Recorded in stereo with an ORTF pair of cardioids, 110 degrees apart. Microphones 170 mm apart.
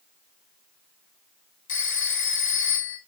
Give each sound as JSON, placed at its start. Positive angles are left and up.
{"t": 1.7, "sound": "a phone ringing", "azimuth_deg": 55, "distance_m": 3.5}